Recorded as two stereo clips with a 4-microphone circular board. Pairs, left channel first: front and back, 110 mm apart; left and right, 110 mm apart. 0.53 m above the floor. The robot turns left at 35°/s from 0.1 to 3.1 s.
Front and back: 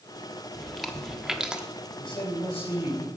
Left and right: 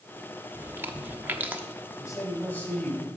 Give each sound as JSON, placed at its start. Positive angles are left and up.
{"t": 0.5, "sound": "chewing", "azimuth_deg": -85, "distance_m": 0.8}
{"t": 2.0, "sound": "a man speaking", "azimuth_deg": 35, "distance_m": 3.5}